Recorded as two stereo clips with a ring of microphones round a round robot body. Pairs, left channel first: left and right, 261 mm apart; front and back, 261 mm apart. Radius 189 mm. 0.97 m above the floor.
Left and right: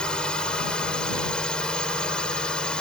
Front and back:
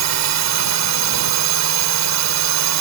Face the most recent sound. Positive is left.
turn(degrees=175)